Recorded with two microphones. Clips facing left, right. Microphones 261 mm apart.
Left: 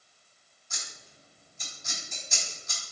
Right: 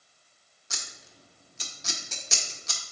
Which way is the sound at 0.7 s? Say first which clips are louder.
Right 3 dB; 70° right (ahead or behind).